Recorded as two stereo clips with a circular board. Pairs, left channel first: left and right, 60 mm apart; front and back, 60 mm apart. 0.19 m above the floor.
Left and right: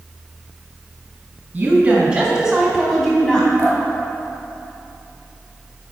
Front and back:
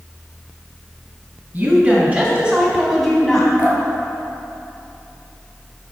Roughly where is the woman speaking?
Behind right.